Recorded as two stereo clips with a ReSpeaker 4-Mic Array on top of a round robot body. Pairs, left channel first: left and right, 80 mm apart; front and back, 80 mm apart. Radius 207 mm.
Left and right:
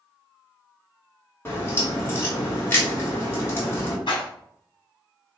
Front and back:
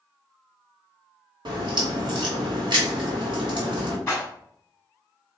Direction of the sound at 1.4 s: 155° left.